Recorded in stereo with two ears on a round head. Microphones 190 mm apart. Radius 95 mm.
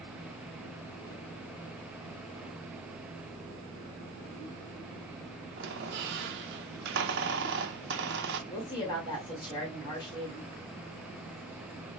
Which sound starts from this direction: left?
A woman speaking, at 8.5 s.